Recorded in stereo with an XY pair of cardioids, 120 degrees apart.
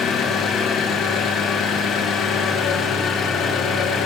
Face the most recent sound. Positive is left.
turn(degrees=65)